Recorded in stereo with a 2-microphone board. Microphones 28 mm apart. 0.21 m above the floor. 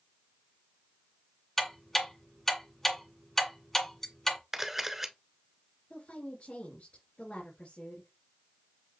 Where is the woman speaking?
60° left (ahead or behind), 3.5 m.